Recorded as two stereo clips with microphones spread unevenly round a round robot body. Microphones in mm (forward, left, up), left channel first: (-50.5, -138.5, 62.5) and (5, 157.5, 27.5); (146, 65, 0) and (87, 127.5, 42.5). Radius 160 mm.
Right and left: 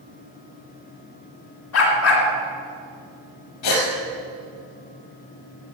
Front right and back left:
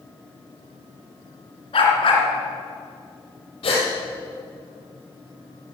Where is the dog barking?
55° right, 2.5 m.